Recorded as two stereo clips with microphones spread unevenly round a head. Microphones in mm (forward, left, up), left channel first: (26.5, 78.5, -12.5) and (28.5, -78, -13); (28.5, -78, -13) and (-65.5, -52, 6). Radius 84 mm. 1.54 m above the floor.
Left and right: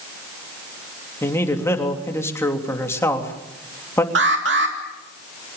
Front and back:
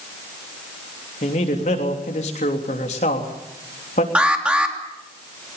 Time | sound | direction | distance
1.2 | a man speaking | 15° left | 3 m
4.2 | an alarm | 115° right | 3.5 m